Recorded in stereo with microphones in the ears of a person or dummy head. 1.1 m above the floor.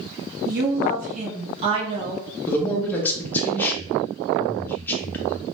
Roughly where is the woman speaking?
Right.